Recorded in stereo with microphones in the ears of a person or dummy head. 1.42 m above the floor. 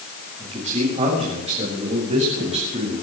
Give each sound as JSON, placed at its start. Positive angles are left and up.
{"t": 0.4, "sound": "a man speaking", "side_deg": -35, "distance_m": 7.0}